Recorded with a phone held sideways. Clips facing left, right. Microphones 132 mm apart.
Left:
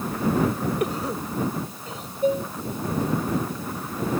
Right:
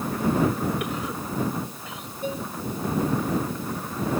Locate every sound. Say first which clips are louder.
0.8 s a cough: left 3 dB; 35° left (ahead or behind)
2.2 s dishes clattering: left 8 dB; 40° left (ahead or behind)